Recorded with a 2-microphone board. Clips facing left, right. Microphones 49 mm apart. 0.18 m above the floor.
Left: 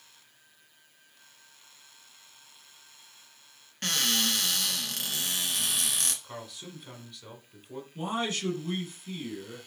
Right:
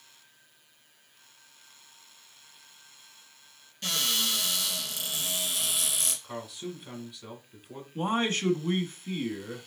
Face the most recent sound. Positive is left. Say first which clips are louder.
# right 4 dB
turn(degrees=-35)  # may be behind; listen again after turning